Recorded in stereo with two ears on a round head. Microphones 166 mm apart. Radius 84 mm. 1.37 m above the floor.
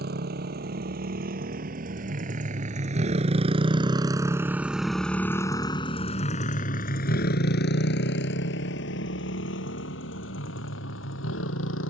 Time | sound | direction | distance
0.0 | a motorcycle | 60° right (ahead or behind) | ?